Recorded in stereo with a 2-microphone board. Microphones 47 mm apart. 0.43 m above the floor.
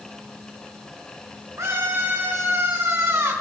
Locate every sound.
1.6 s a scream: 75° right (ahead or behind), 5 m